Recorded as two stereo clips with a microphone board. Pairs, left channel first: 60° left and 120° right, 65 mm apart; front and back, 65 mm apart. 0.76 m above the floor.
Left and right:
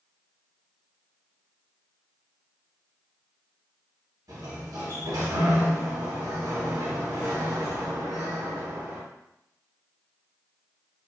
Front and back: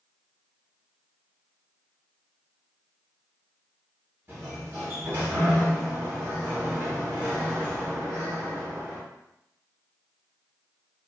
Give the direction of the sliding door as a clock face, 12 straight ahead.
4 o'clock.